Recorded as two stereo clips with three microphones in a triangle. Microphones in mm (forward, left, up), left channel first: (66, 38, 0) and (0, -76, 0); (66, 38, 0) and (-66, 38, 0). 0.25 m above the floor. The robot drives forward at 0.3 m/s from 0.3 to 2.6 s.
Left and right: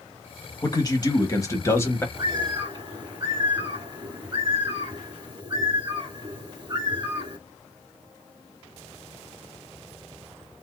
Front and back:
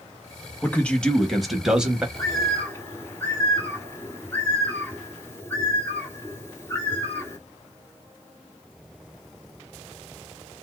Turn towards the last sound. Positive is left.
turn(degrees=-70)